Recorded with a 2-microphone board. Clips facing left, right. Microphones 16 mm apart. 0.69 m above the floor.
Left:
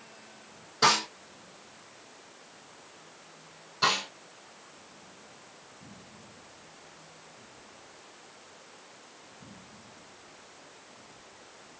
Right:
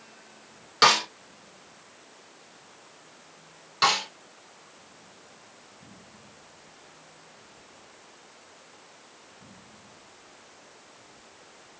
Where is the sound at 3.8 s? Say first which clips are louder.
Right 4 dB; 55° right (ahead or behind), 2.5 m.